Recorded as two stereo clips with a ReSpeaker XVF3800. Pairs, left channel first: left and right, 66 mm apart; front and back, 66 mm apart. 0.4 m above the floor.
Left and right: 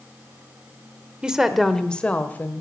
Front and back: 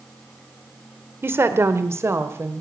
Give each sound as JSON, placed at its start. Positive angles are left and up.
{"t": 1.2, "sound": "a woman speaking", "azimuth_deg": -160, "distance_m": 1.3}